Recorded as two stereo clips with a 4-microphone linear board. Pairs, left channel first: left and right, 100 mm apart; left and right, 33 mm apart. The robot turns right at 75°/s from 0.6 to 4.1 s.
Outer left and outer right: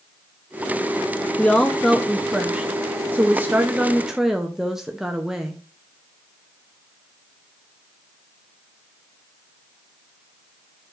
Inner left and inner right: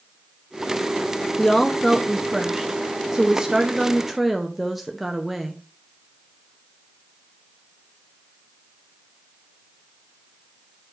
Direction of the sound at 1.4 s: 10° left (ahead or behind).